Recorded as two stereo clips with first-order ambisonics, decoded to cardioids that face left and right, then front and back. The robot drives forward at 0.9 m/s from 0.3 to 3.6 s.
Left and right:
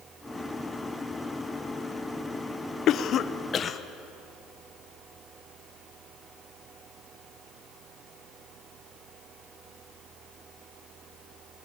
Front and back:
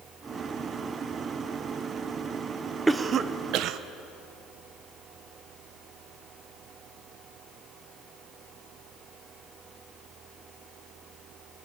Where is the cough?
105° left, 0.7 m; by 3.8 s 155° left, 1.0 m.